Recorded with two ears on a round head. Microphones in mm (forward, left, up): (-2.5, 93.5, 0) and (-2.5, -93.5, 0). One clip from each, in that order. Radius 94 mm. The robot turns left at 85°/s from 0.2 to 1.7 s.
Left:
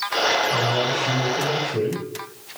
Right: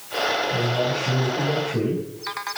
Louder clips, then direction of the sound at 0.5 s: Left 2 dB; 175° right.